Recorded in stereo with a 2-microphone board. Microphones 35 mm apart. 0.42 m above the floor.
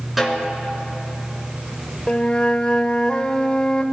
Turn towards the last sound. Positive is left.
turn(degrees=25)  # may be behind; listen again after turning